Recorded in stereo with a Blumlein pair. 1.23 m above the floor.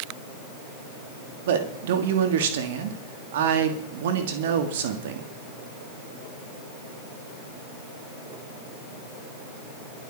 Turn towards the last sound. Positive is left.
turn(degrees=-55)